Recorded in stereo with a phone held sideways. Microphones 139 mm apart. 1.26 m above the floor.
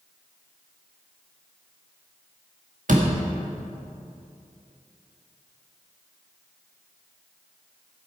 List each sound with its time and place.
2.9 s a door slam: 70° right (ahead or behind), 1.7 m